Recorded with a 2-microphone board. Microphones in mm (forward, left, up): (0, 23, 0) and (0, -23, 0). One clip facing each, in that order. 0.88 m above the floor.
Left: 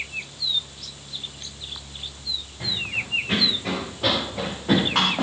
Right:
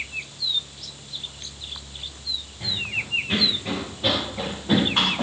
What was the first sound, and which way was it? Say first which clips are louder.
Running footsteps: even; 85° left.